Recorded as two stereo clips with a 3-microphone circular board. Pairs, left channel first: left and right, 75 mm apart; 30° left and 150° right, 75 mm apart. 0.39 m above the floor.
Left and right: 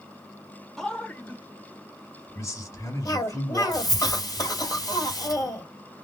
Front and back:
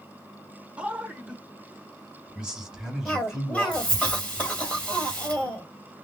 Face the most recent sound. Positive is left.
turn(degrees=105)